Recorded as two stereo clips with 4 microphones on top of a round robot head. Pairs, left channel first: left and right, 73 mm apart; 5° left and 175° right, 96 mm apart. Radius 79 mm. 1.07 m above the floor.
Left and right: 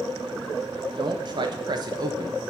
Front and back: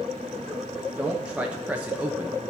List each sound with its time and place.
1.0 s a man speaking: 95° right, 1.5 m; by 2.4 s 105° right, 0.8 m